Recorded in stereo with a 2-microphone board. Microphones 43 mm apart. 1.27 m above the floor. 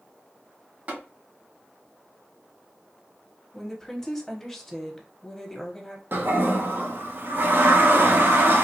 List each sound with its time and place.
0.9 s tapping: 35° right (ahead or behind), 1.6 m
3.5 s a woman speaking: 5° left (ahead or behind), 0.9 m
6.1 s a toilet flushing: 55° right (ahead or behind), 0.6 m